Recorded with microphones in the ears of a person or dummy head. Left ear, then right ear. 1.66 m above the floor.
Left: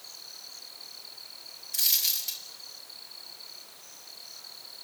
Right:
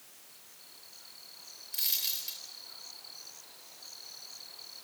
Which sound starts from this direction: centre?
A dropped coin, at 1.7 s.